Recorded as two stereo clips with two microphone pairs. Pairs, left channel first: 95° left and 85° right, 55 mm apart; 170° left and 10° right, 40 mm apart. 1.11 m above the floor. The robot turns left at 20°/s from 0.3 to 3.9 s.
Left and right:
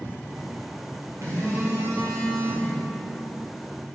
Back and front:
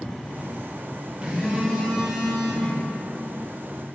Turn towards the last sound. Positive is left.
turn(degrees=-120)